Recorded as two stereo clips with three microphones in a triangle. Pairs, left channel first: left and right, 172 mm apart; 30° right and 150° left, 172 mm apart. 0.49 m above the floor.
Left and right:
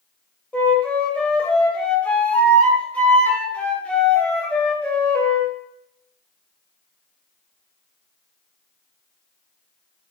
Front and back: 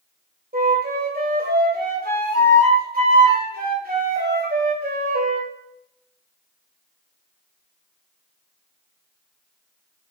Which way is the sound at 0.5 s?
170° left.